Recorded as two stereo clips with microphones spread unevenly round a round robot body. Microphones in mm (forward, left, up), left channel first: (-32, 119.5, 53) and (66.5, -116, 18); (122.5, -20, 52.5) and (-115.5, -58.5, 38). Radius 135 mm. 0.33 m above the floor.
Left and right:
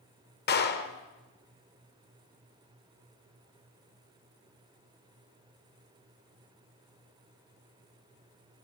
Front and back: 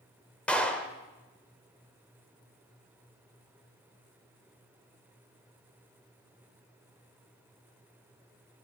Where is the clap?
95° left, 1.1 m.